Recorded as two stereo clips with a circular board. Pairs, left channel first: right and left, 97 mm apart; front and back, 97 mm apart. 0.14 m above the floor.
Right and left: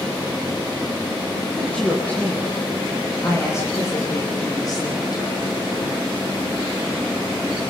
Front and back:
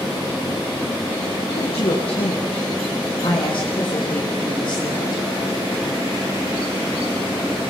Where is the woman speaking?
10° right, 6.5 m; by 5.2 s 45° right, 7 m.